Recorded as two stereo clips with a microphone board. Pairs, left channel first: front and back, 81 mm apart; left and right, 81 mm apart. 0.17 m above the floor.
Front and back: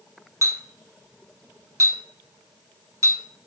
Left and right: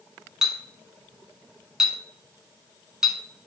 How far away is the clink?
About 0.9 m.